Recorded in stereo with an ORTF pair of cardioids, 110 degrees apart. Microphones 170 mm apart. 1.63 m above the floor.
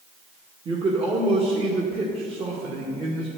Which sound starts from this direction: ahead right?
A man speaking, at 0.7 s.